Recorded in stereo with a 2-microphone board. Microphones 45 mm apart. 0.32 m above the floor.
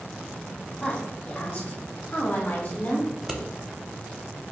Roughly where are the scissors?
Centre.